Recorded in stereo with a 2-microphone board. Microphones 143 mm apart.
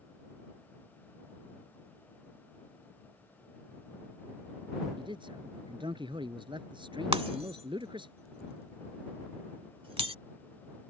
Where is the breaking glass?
40° right (ahead or behind).